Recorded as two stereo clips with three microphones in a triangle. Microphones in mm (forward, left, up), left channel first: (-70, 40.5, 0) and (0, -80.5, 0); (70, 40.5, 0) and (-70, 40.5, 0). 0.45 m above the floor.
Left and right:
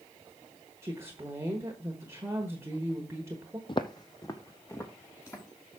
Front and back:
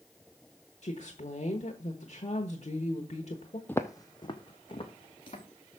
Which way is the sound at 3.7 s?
75° left.